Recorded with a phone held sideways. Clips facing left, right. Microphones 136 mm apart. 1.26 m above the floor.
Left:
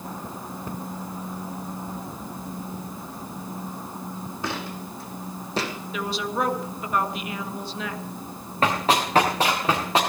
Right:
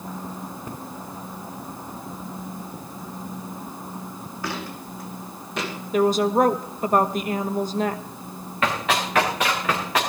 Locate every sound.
4.4 s footsteps: 20° left (ahead or behind), 4 m; by 5.7 s 35° left (ahead or behind), 3.5 m
5.9 s a woman speaking: 45° right (ahead or behind), 1.4 m
8.6 s running footsteps: 35° left (ahead or behind), 6 m; by 10.0 s 25° left (ahead or behind), 5.5 m